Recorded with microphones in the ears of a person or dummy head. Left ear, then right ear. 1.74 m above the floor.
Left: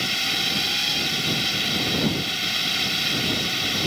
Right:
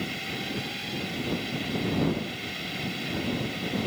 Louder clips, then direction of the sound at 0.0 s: Left 10 dB; 45° left (ahead or behind).